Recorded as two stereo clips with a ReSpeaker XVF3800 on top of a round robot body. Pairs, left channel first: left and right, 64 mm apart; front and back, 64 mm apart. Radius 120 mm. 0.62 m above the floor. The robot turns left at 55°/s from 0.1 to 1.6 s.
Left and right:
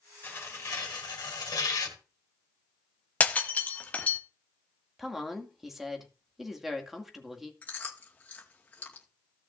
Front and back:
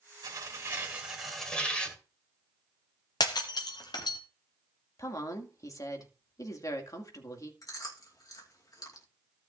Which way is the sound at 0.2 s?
150° left.